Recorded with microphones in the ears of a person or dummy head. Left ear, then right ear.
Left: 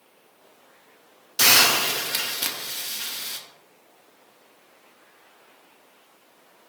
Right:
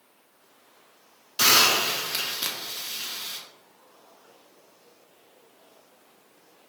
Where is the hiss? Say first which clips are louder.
Left 2 dB; 10° left (ahead or behind), 0.5 m.